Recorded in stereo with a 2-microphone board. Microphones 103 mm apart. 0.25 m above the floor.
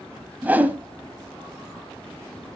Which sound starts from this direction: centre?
A whoosh, at 0.4 s.